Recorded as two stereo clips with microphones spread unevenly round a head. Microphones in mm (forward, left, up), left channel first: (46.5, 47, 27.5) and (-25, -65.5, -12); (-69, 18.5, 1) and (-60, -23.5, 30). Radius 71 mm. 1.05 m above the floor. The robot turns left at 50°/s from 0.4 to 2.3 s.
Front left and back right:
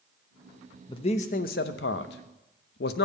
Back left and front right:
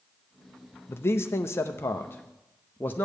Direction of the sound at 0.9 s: 120° left.